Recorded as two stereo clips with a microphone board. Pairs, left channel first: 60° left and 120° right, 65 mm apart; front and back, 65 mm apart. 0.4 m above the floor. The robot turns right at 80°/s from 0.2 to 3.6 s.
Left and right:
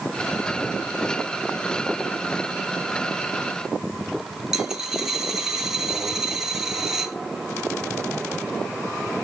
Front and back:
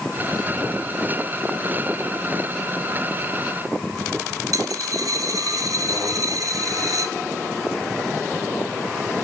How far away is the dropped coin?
About 2.0 m.